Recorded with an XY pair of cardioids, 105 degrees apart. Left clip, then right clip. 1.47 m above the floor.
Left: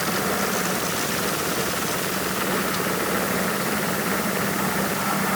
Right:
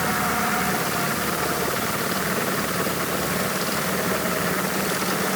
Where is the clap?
No clap in this recording.